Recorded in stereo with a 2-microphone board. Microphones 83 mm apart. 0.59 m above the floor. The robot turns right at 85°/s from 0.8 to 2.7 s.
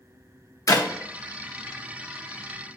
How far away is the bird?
I don't hear a bird.